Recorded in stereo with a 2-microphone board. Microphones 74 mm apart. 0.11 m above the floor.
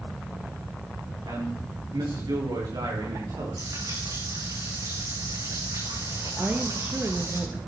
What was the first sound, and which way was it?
A man speaking, 60° right (ahead or behind).